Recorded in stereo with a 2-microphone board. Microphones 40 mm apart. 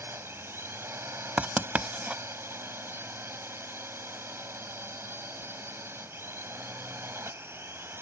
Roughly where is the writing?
Right.